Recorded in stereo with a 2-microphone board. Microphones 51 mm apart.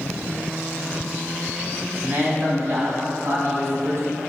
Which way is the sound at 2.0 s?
40° right (ahead or behind).